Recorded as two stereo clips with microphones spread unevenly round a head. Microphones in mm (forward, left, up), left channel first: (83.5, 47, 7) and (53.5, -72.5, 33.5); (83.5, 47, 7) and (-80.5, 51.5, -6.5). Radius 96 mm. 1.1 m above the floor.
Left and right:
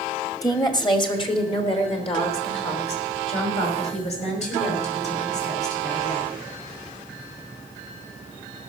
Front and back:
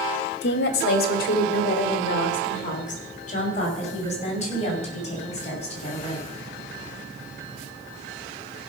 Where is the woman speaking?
15° left, 1.8 m; by 6.3 s 50° left, 7 m.